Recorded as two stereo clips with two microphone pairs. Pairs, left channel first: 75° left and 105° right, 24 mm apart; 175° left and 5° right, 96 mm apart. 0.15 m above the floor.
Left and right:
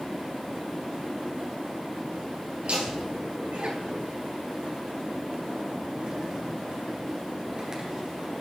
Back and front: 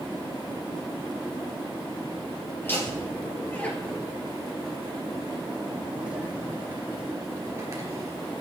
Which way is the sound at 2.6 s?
120° right.